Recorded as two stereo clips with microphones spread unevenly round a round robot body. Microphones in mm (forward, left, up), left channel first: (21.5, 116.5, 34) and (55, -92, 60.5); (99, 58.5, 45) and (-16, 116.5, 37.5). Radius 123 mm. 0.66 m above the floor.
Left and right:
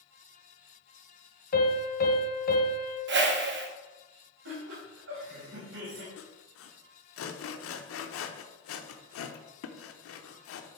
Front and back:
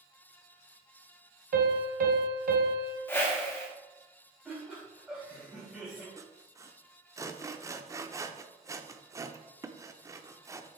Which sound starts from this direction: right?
A whoosh, at 3.1 s.